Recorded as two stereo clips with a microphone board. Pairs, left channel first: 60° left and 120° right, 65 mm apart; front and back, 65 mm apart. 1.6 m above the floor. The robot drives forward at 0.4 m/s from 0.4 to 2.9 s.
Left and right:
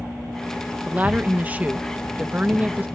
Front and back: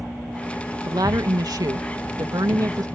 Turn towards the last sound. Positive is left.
turn(degrees=175)